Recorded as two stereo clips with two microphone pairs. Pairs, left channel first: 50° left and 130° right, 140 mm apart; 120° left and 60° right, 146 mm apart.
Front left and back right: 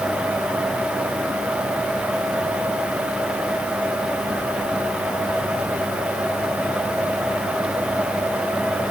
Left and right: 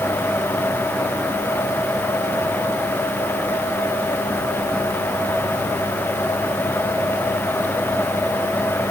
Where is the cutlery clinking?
No cutlery clinking in this recording.